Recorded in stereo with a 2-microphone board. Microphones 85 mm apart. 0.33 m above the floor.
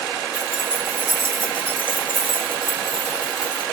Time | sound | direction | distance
0.3 | keys jangling | 80° left | 4 m